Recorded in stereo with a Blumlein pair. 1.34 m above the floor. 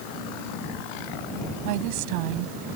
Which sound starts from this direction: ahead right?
A woman speaking, at 1.6 s.